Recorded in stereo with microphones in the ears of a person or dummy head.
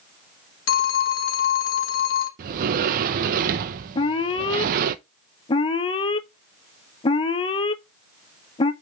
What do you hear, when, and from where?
0.7 s a phone ringing: 65° left (ahead or behind), 1.0 m
2.4 s a sliding door: 50° right (ahead or behind), 0.6 m
4.0 s an alarm: 25° left (ahead or behind), 0.9 m